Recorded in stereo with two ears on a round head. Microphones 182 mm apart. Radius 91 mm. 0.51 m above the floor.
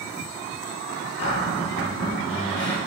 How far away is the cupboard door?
About 4 m.